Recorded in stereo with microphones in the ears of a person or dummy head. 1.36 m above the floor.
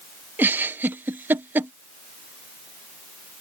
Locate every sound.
0.4 s a giggle: 10° right (ahead or behind)